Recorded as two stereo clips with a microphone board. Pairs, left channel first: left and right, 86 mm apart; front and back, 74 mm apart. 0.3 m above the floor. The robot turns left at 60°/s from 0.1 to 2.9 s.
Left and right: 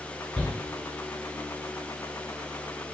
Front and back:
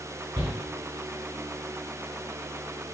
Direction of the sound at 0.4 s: 175° left.